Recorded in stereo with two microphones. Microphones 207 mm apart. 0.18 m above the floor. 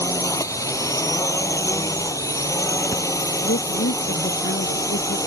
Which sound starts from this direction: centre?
A drone, at 0.0 s.